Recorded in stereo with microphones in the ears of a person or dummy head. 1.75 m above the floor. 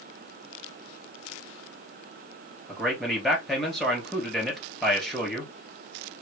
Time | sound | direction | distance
2.7 | a man speaking | 5° right (ahead or behind) | 3 m